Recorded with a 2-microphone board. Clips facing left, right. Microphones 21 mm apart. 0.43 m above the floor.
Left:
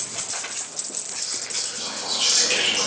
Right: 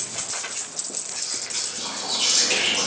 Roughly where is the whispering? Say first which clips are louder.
Even; centre.